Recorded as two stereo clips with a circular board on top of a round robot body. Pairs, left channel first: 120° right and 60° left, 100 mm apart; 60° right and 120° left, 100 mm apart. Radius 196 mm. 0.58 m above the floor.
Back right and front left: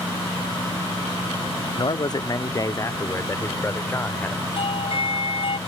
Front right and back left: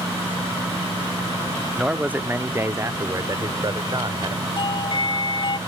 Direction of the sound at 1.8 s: 160° right.